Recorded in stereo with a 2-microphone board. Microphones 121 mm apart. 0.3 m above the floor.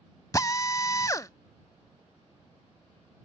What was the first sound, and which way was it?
A drill, 30° left (ahead or behind).